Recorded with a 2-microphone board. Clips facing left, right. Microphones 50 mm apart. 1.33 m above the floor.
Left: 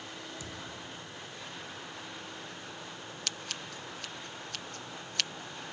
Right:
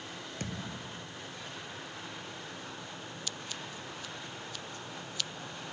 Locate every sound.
0.4 s a thud: 50° right (ahead or behind)
3.3 s scissors: 70° left (ahead or behind)